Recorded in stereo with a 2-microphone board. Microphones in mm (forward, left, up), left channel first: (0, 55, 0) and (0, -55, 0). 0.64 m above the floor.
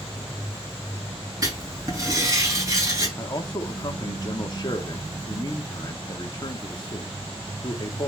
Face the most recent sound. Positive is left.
turn(degrees=40)  # may be behind; listen again after turning